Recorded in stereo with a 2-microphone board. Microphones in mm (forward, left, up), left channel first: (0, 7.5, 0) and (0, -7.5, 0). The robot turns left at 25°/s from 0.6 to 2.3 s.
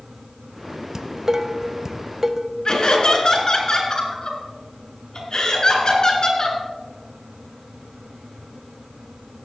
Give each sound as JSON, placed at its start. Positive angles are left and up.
{"t": 0.9, "sound": "dishes clattering", "side_deg": -30, "distance_m": 0.7}
{"t": 2.6, "sound": "laughter", "side_deg": 50, "distance_m": 3.0}